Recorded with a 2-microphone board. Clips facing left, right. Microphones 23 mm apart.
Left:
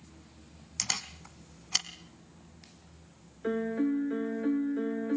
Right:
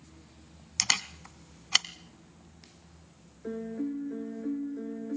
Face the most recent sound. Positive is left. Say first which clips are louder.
# left 5 dB
turn(degrees=60)  # may be behind; listen again after turning